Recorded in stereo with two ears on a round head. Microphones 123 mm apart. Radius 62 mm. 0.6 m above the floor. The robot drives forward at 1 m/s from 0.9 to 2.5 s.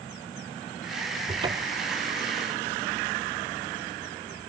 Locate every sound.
1.3 s a cupboard door: 30° right (ahead or behind)